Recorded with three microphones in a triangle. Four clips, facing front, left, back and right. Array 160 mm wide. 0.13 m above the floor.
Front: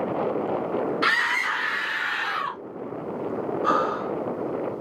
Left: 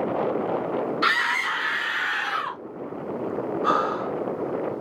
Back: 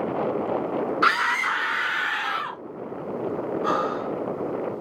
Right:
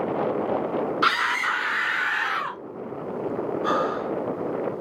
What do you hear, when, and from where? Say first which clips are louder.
1.0 s a scream: right 1 dB, back 3 dB; 155° right, 1.4 m; by 2.6 s 130° right, 1.8 m
3.6 s breathing: left 2 dB, front 2 dB; 60° left, 1.7 m